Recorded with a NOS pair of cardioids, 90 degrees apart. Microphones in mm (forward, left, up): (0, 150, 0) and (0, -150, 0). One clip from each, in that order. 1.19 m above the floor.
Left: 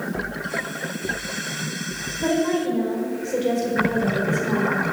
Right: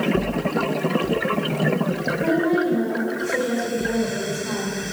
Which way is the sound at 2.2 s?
25° left.